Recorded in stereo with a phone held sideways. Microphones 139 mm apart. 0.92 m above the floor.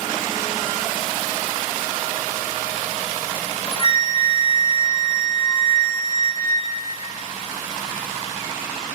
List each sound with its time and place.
3.4 s a flute: 40° left (ahead or behind), 1.1 m